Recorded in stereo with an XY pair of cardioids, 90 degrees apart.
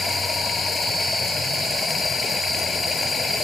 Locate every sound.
0.0 s running water: 40° left